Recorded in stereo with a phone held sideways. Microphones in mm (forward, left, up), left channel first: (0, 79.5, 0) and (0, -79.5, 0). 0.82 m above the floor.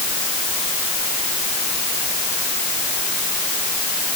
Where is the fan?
I don't hear a fan.